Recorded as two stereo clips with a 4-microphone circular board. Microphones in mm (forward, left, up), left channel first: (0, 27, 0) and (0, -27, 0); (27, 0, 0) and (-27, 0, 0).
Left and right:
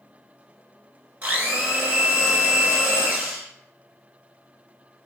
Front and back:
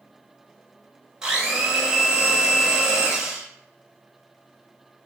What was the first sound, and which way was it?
A blender, 120° right.